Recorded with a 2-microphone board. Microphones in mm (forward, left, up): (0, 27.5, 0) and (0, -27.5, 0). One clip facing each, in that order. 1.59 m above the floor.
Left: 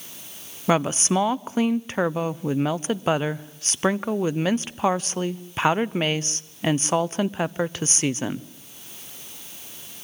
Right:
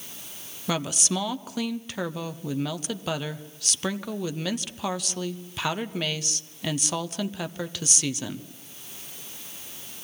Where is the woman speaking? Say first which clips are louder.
Left 7 dB; 35° left (ahead or behind), 0.7 m.